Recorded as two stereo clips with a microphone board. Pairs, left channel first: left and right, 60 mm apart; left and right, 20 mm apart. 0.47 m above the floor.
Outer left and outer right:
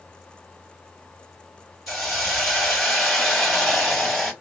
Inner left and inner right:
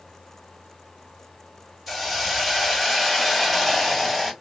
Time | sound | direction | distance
1.9 | a hiss | 5° left (ahead or behind) | 1.9 m